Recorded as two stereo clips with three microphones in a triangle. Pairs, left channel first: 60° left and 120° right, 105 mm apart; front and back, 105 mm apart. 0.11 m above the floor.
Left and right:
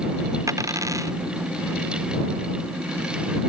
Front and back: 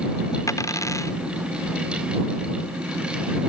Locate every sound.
0.5 s a dropped coin: 60° right